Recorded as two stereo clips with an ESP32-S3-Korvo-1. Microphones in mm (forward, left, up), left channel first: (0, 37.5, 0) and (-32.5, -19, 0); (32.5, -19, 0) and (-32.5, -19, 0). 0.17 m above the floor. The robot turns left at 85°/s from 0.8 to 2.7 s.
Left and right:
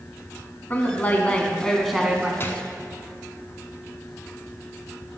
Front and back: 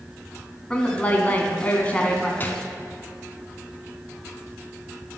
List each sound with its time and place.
0.7 s a woman speaking: 55° left, 1.1 m; by 2.3 s 70° right, 1.1 m
2.4 s a gunshot: 35° left, 0.6 m; by 2.7 s 15° left, 0.6 m